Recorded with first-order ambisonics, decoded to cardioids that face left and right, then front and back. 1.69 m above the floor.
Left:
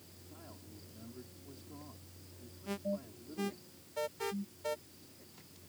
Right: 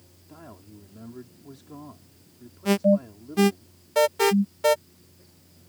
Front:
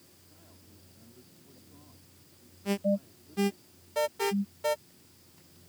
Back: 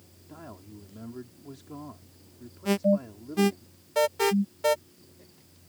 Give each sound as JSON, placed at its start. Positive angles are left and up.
{"t": 0.3, "sound": "a man speaking", "azimuth_deg": -145}
{"t": 2.6, "sound": "an alarm", "azimuth_deg": -110}